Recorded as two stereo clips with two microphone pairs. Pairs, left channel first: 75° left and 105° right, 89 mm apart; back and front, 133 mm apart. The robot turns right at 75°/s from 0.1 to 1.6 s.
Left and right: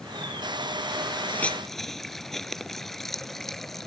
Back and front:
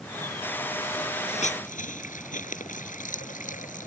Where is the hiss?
135° left; by 3.9 s 160° left.